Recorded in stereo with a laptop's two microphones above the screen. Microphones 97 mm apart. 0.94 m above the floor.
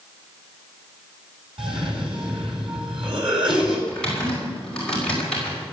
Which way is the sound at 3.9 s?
10° left (ahead or behind).